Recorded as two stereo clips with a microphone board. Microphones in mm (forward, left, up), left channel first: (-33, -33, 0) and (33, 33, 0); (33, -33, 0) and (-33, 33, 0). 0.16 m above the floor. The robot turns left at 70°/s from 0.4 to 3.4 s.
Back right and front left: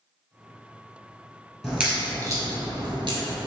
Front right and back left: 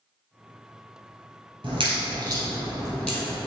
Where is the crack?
135° left, 1.3 m; by 3.4 s 10° left, 1.3 m.